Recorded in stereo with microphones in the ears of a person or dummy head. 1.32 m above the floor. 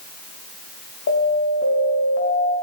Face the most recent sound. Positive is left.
turn(degrees=65)  # may be behind; listen again after turning